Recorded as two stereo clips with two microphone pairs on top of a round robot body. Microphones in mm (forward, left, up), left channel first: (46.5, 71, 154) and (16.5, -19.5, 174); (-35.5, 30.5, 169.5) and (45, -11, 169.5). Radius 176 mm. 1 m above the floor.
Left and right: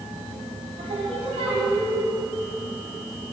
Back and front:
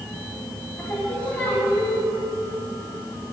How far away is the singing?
About 4 m.